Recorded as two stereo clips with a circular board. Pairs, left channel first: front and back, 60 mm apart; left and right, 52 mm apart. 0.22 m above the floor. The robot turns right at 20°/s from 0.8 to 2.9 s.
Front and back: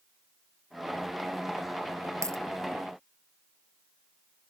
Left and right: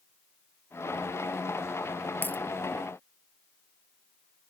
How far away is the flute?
I don't hear a flute.